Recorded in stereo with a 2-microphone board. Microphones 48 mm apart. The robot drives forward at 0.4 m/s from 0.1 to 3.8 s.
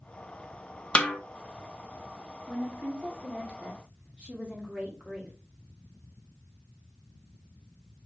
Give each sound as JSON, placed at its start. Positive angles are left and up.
{"t": 0.9, "sound": "a snare drum", "side_deg": 25, "distance_m": 0.7}
{"t": 2.5, "sound": "a woman speaking", "side_deg": -25, "distance_m": 1.5}